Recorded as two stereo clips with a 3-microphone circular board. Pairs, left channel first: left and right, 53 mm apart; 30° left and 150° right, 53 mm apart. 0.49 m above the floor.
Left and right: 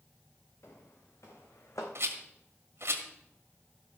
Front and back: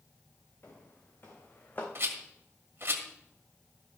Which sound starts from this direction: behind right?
A rattle, at 1.9 s.